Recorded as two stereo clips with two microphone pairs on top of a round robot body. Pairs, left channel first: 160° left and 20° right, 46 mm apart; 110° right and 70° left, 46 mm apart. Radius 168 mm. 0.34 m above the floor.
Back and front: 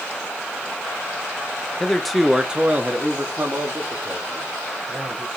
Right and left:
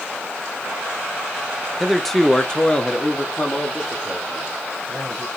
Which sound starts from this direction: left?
A man speaking, at 1.8 s.